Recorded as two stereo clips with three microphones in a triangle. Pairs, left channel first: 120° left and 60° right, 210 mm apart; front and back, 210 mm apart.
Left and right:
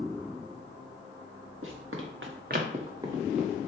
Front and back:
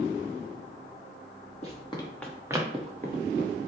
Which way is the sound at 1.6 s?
55° right.